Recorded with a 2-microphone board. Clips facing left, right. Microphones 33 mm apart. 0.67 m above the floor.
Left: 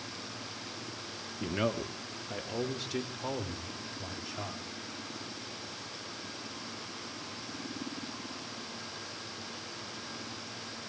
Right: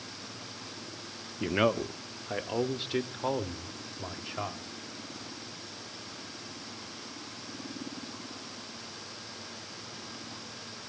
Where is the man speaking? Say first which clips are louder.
Right 5 dB; 30° right (ahead or behind), 0.9 m; by 4.6 s 25° right (ahead or behind), 3 m.